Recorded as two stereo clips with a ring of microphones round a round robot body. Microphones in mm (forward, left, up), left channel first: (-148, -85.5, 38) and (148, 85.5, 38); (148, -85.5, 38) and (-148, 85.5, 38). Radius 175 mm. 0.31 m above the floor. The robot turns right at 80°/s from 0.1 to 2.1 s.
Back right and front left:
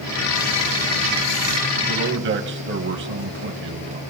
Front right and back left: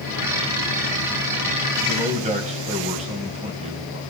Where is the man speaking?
60° left, 2.5 m; by 4.0 s 80° left, 2.5 m.